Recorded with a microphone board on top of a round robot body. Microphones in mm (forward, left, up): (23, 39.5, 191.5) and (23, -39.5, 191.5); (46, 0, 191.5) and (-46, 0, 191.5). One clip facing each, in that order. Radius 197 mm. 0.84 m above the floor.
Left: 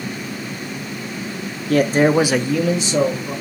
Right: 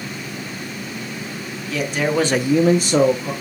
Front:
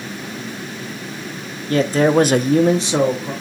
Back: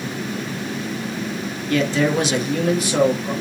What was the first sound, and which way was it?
A man speaking, 55° left.